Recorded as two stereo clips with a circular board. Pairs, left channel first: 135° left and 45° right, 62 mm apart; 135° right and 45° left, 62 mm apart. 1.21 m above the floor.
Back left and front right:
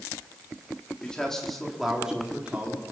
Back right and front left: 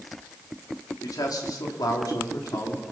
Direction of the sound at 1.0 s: 150° right.